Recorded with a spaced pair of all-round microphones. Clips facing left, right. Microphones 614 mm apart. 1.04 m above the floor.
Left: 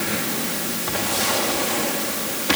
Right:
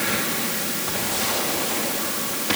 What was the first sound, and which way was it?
Only background noise.